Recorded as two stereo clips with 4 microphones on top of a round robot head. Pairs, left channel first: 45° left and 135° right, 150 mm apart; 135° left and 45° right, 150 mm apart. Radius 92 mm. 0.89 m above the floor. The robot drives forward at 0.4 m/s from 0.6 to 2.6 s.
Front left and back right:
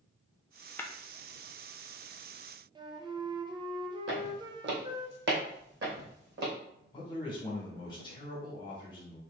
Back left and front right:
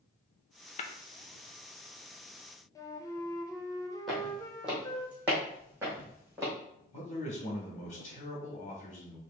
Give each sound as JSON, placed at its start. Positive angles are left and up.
{"t": 0.8, "sound": "tapping", "azimuth_deg": 120, "distance_m": 0.8}
{"t": 2.8, "sound": "a flute", "azimuth_deg": -170, "distance_m": 0.7}
{"t": 4.1, "sound": "footsteps", "azimuth_deg": -135, "distance_m": 2.0}
{"t": 6.9, "sound": "a man speaking", "azimuth_deg": 110, "distance_m": 1.8}